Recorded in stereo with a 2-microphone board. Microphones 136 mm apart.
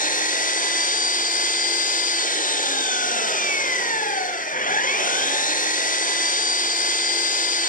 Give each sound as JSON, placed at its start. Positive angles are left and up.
{"t": 0.0, "sound": "an engine running", "side_deg": 75, "distance_m": 1.4}